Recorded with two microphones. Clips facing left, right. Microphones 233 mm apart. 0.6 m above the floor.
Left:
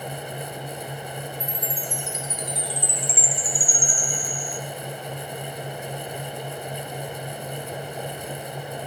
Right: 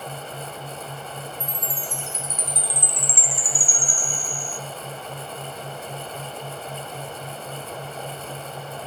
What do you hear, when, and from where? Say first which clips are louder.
1.4 s a chime: left 2 dB; 50° right (ahead or behind), 0.8 m